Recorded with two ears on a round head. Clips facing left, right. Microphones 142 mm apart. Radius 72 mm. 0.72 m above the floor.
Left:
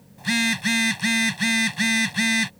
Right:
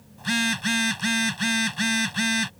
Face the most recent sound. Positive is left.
turn(degrees=10)  # may be behind; listen again after turning